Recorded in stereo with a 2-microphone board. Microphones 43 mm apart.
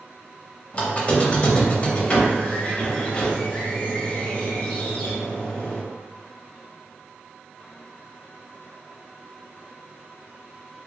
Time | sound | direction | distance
0.7 | a squeak | 30° left (ahead or behind) | 0.6 m